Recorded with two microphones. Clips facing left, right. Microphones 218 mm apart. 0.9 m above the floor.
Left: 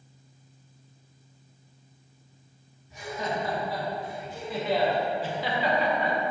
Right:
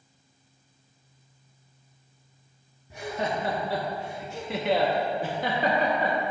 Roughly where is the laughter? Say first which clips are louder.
Right 2 dB; right.